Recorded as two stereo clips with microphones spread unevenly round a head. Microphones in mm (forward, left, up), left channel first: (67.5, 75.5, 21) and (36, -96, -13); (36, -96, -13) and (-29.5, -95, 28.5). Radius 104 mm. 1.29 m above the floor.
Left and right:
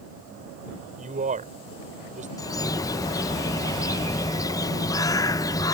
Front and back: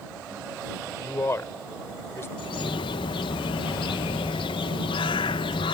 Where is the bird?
15° left.